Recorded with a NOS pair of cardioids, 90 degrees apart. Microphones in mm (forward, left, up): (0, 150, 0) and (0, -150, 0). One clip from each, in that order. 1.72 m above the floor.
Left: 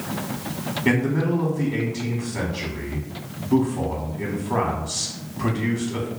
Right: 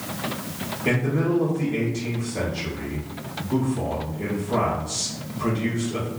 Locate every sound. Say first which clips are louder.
0.8 s a man speaking: left 1 dB; 35° left, 0.9 m